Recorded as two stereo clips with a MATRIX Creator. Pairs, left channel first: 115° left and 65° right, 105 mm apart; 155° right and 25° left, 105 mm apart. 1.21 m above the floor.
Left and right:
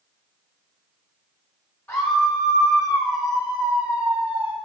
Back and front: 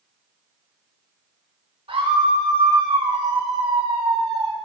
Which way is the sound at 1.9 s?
35° left.